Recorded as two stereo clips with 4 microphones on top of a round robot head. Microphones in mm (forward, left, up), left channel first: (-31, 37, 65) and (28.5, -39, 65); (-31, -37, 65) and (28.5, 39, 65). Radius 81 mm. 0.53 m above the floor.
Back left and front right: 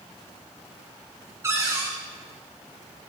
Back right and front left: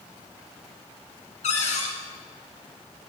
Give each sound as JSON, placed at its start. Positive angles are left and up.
{"t": 1.4, "sound": "a cupboard door", "azimuth_deg": -115, "distance_m": 1.9}